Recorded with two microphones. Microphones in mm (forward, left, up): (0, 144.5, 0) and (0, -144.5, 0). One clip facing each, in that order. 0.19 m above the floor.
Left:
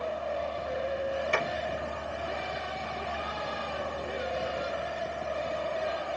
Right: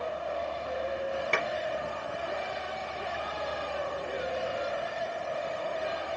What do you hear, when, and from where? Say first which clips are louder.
1.3 s a clap: left 2 dB; 70° right (ahead or behind), 3 m